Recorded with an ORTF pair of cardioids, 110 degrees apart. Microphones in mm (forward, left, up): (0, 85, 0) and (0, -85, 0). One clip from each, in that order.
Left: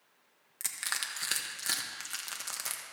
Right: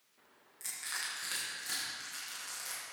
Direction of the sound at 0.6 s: 60° left.